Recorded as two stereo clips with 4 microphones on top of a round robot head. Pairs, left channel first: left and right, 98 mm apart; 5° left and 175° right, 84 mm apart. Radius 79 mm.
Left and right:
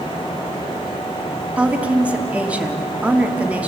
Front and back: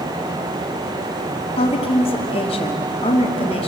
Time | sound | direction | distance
1.6 | a woman speaking | 15° right | 3 m